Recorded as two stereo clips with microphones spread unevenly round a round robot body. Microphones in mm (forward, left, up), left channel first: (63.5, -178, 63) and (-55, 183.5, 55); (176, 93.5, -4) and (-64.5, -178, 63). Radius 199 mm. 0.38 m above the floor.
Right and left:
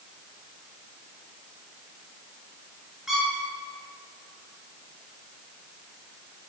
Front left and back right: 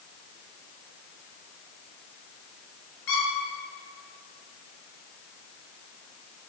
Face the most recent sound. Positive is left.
turn(degrees=20)